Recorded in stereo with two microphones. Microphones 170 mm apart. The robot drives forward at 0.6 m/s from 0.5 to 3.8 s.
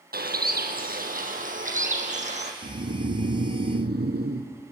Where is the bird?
65° right (ahead or behind), 1.9 m; by 2.5 s 45° right (ahead or behind), 2.5 m.